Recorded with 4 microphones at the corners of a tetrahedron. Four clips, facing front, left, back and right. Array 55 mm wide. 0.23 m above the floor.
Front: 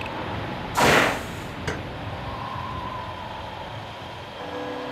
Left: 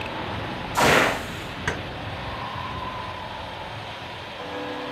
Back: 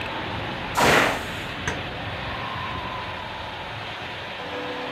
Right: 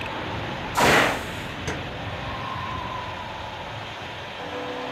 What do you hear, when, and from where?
1.7 s keys jangling: 130° left, 1.5 m